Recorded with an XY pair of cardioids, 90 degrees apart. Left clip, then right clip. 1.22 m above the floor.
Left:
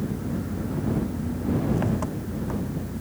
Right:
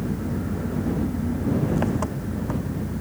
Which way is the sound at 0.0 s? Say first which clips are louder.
Right 2 dB; 30° right.